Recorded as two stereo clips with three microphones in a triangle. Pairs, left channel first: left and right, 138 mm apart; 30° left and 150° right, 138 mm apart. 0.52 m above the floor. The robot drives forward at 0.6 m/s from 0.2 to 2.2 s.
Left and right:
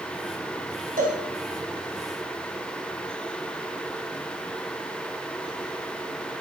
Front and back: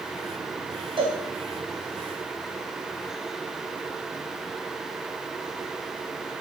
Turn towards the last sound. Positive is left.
turn(degrees=-110)